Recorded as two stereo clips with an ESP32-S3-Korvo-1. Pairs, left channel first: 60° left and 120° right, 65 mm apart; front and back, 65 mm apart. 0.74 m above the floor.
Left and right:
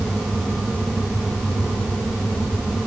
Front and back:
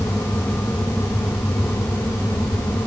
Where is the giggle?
I don't hear a giggle.